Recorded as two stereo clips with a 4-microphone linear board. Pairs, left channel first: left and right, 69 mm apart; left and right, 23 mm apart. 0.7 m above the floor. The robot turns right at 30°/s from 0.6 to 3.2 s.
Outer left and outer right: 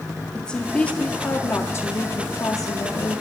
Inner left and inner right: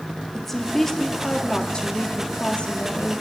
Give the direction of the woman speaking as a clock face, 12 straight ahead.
11 o'clock.